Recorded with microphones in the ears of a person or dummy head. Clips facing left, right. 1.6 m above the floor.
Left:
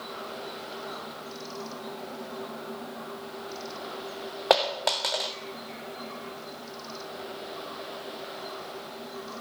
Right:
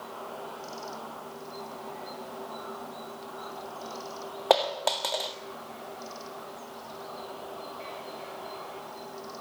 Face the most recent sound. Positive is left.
turn(degrees=10)  # may be behind; listen again after turning